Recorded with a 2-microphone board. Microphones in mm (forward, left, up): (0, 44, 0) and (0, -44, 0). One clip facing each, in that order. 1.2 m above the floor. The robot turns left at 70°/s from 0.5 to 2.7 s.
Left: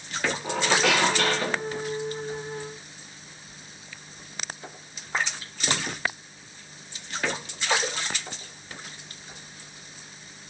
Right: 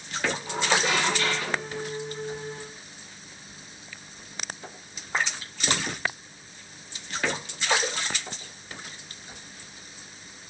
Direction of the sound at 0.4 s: 110° left.